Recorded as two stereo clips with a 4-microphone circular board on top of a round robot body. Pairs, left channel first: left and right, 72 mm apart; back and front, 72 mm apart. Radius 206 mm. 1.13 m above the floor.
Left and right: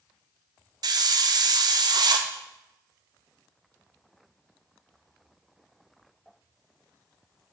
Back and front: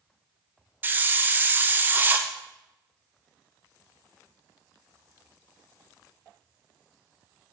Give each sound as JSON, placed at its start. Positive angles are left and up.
{"t": 0.8, "sound": "a hiss", "azimuth_deg": -65, "distance_m": 0.7}